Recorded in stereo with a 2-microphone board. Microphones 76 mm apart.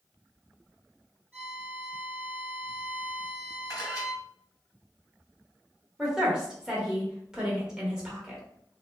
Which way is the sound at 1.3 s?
15° left (ahead or behind).